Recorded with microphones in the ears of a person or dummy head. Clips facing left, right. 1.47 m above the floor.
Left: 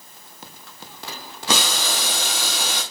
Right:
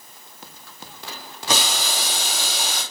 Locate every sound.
1.5 s boiling: 60° left (ahead or behind), 3 m